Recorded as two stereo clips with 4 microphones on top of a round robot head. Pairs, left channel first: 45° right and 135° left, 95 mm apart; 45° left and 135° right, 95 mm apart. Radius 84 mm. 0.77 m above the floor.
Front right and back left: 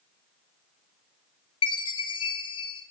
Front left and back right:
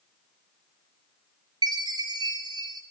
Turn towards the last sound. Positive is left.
turn(degrees=-85)